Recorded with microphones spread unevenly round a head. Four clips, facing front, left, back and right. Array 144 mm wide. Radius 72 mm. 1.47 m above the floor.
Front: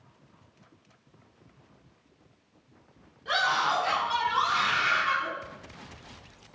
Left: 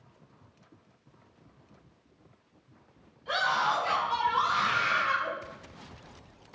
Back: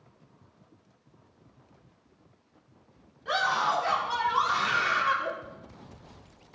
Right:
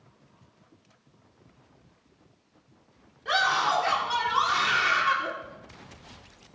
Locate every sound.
3.2 s a scream: 80° right, 5.5 m; by 5.3 s 100° right, 5.5 m